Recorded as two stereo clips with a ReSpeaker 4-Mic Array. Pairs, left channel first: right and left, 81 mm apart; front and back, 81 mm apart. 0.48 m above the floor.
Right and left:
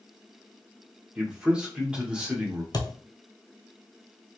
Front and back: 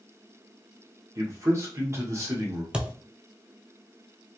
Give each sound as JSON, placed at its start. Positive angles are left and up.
{"t": 1.1, "sound": "a man speaking", "azimuth_deg": 160, "distance_m": 1.2}
{"t": 2.7, "sound": "a thud", "azimuth_deg": -105, "distance_m": 0.7}